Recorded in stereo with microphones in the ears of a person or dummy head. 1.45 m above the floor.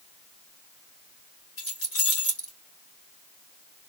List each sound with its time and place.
1.6 s keys jangling: 70° left (ahead or behind), 1.3 m